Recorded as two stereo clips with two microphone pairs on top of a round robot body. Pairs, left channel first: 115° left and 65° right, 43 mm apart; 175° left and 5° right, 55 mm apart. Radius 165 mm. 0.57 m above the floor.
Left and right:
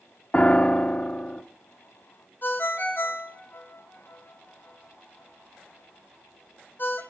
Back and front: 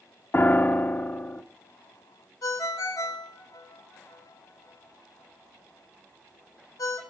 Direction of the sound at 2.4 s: 160° left.